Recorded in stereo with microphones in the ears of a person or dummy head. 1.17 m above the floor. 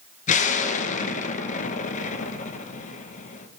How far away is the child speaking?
No child speaking in this recording.